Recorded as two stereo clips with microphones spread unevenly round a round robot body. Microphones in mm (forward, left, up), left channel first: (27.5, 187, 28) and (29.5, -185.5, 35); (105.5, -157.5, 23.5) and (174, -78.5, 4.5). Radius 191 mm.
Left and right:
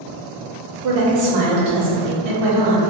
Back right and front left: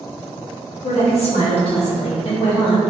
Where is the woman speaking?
115° right, 1.0 m; by 2.8 s 100° right, 1.8 m.